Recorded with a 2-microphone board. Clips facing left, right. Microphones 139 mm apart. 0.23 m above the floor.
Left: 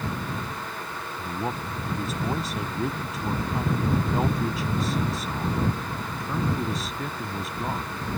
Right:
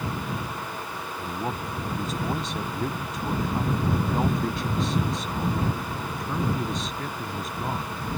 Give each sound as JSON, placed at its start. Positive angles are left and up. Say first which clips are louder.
{"t": 1.2, "sound": "a man speaking", "louder": "left 1 dB", "side_deg": 0}